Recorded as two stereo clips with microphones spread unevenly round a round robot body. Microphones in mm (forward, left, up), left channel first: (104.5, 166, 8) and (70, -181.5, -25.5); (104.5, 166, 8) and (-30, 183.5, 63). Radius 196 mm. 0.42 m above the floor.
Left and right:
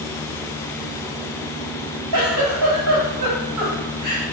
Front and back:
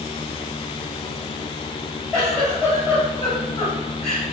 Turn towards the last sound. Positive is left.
turn(degrees=-75)